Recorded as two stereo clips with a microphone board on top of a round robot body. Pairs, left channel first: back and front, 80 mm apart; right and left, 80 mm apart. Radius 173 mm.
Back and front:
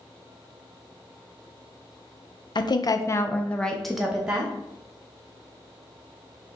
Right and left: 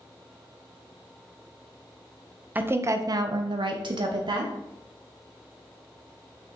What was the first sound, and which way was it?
A woman speaking, 160° left.